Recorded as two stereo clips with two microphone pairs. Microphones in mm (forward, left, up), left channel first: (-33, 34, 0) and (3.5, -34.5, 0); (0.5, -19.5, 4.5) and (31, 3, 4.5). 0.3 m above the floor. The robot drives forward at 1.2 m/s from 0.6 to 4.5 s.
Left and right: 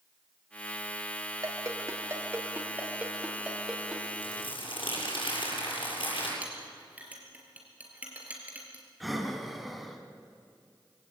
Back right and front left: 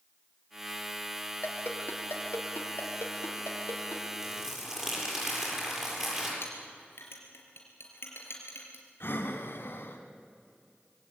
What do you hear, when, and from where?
1.4 s a ringtone: 105° right, 3 m; by 4.0 s 145° right, 4.5 m
4.2 s crumpling: 115° left, 7.5 m
6.4 s a clink: 135° right, 3.5 m
9.0 s breathing: 150° right, 2.0 m